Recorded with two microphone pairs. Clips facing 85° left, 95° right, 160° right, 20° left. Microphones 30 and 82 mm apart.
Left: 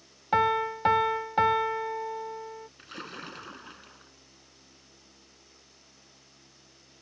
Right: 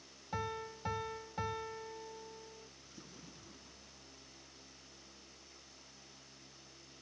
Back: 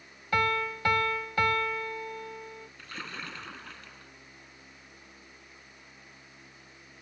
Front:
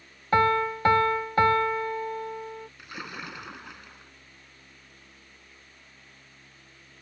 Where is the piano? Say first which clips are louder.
Left 17 dB, front 6 dB; 75° left.